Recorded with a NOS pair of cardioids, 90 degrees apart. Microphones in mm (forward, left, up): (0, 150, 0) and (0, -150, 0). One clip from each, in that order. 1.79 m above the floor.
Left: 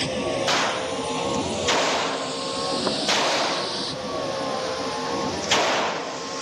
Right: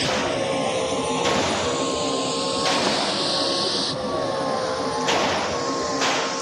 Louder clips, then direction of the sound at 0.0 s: Right 2 dB; 45° right.